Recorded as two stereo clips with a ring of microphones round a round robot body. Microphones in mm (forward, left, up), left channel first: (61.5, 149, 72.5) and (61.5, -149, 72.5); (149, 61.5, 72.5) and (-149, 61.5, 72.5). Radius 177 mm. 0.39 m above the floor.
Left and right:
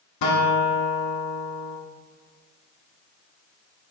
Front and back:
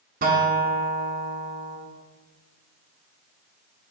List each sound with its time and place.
0.2 s a guitar: 115° left, 0.8 m